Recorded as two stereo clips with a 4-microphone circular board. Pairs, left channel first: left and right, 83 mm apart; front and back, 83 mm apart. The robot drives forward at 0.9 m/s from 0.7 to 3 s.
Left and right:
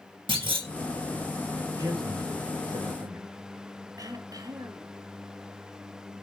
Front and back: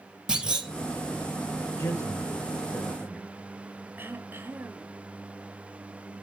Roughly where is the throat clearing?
Behind right.